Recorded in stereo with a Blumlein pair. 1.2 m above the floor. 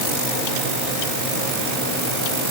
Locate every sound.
Only background noise.